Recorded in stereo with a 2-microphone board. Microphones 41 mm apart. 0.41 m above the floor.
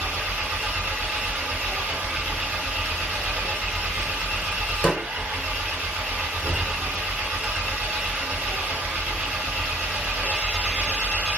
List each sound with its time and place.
0.0 s an engine running: 45° right (ahead or behind), 1.7 m
4.8 s a snare drum: 10° left (ahead or behind), 0.7 m